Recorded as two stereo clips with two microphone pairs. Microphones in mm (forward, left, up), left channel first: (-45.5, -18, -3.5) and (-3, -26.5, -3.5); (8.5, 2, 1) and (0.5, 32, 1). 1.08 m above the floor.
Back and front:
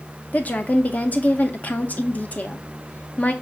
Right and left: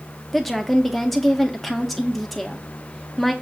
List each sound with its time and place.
0.3 s a woman speaking: 160° right, 0.6 m